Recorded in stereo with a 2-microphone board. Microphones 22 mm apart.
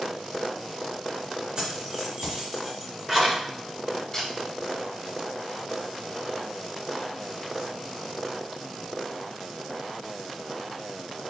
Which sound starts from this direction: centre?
A camera shutter, at 4.1 s.